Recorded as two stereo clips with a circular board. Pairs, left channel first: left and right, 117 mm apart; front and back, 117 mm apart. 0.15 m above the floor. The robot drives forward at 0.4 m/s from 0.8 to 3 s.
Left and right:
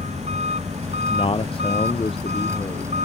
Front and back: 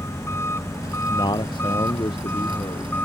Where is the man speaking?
50° left.